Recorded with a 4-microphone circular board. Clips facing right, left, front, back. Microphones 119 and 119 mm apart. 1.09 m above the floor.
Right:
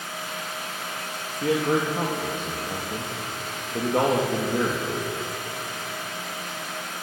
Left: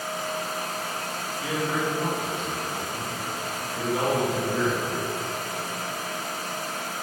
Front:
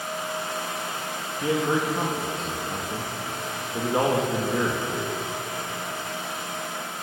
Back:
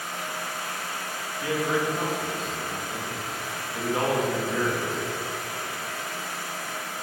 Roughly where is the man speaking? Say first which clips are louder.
Right 5 dB, front 2 dB; ahead right.